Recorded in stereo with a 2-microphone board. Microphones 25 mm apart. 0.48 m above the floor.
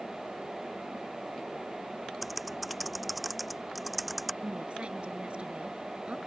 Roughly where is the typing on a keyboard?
Centre.